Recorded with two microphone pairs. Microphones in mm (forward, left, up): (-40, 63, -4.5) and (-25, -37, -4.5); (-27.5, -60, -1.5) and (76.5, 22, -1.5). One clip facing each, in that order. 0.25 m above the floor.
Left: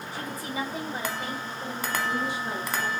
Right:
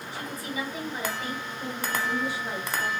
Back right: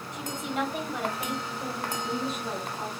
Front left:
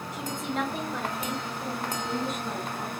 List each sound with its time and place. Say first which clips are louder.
0.1 s a woman speaking: left 1 dB, even; 115° left, 1.4 m; by 2.9 s 140° right, 1.6 m